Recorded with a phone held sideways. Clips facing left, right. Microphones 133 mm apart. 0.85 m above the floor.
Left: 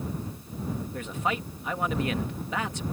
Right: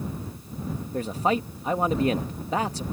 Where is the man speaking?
35° right (ahead or behind).